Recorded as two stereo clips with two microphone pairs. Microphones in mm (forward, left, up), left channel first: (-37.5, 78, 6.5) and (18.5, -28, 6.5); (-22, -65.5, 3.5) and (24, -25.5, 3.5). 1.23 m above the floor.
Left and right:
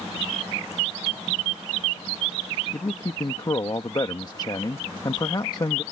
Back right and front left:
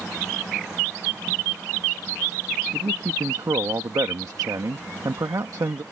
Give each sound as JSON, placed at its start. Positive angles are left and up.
{"t": 2.7, "sound": "a man speaking", "azimuth_deg": 65}